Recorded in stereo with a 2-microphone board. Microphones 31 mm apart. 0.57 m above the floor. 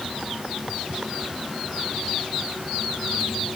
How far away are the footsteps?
No footsteps in this recording.